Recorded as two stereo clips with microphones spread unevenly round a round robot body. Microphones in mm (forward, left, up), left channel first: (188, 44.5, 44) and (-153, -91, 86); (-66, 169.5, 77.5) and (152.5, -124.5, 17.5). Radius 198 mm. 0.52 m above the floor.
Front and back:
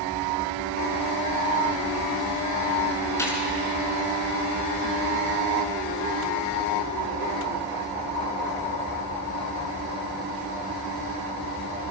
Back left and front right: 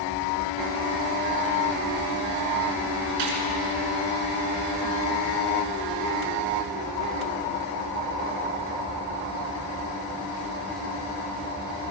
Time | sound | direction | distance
3.2 | a gunshot | 60° right | 4.5 m